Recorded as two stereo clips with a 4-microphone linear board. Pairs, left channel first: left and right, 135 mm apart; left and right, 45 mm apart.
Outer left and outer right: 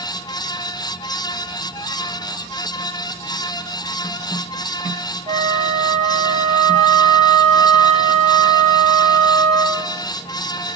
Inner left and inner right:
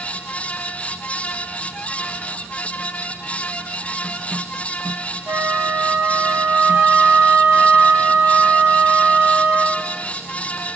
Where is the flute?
55° right (ahead or behind), 2.5 m.